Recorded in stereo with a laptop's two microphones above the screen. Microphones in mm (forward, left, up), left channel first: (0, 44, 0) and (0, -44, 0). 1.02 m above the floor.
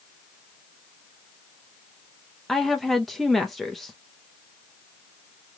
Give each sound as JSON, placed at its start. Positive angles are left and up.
{"t": 2.5, "sound": "a woman speaking", "side_deg": 0, "distance_m": 0.8}